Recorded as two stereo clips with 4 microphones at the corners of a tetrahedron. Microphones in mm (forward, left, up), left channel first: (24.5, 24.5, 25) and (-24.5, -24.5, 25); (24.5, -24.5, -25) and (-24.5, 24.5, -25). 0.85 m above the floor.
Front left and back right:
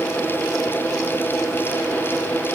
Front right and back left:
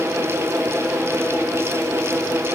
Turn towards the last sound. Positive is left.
No sound to turn to.